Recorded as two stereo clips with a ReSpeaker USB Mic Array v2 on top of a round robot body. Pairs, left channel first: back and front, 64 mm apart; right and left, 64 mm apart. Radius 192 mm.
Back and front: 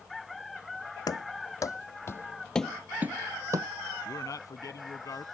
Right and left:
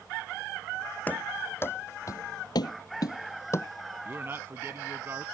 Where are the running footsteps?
155° right; by 3.7 s 35° right.